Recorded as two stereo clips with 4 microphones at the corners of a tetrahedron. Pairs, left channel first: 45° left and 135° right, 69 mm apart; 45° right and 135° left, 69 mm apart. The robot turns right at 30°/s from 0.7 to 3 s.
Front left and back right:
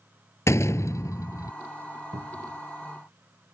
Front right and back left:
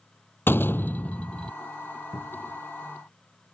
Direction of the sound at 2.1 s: 125° right.